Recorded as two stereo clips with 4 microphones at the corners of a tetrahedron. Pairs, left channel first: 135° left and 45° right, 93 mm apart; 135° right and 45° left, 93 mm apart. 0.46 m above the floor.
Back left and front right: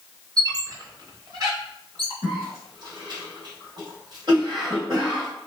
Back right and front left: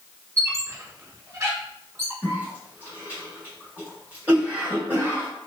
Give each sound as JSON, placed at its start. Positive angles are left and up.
{"t": 0.4, "sound": "a squeak", "azimuth_deg": -10, "distance_m": 0.9}
{"t": 2.2, "sound": "a cough", "azimuth_deg": -25, "distance_m": 2.0}